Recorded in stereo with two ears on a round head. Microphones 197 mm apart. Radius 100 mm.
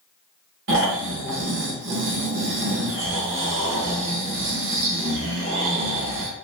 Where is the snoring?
55° right (ahead or behind), 0.9 m.